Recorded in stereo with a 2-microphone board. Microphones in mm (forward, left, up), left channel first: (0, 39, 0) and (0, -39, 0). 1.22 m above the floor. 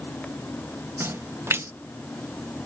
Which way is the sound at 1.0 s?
30° right (ahead or behind).